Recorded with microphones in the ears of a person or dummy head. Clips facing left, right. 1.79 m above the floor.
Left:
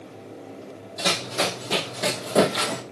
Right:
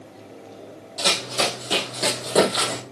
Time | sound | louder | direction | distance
1.0 | running footsteps | right 1 dB | 10° right (ahead or behind) | 3.5 m